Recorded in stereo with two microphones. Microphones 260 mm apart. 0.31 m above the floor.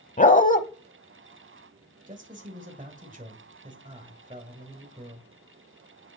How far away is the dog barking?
About 0.8 m.